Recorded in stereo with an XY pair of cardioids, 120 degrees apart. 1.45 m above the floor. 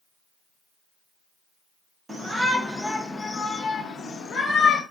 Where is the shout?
20° right, 1.0 m; by 4.8 s 55° left, 1.6 m.